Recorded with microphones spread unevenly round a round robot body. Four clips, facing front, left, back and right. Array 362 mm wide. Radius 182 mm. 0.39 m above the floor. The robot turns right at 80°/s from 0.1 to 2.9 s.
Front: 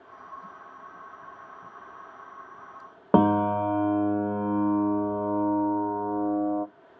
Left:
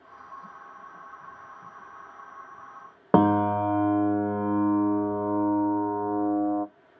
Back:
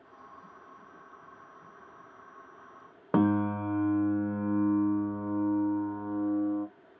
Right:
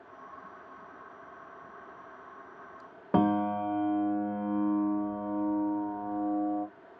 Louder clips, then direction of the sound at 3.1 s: Left 6 dB, front 5 dB; 45° left.